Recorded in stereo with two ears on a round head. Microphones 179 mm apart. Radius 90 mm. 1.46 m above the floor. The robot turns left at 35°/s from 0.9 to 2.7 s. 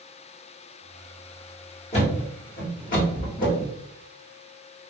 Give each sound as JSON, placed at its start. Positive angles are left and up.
{"t": 1.9, "sound": "a thud", "side_deg": 35, "distance_m": 1.3}